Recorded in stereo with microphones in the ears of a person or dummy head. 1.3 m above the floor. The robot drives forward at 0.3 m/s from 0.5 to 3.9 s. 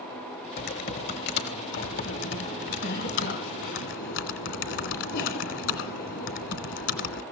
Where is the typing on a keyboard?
55° left (ahead or behind), 2.5 m; by 7.2 s 70° left (ahead or behind), 2.5 m.